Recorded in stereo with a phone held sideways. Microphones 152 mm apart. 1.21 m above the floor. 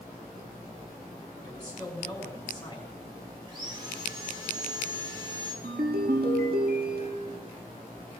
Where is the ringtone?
80° right, 1.6 m.